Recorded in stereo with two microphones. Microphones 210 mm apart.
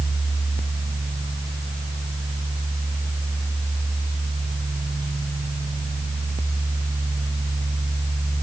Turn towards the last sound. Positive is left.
No sound to turn to.